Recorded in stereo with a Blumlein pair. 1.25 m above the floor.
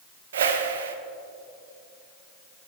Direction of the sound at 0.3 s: 60° right.